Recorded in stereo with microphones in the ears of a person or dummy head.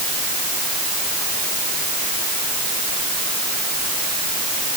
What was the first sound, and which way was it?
Only background noise.